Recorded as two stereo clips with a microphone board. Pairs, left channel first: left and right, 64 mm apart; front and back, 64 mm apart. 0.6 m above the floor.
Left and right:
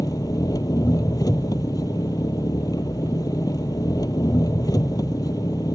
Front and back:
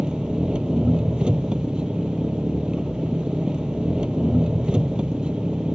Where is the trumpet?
No trumpet in this recording.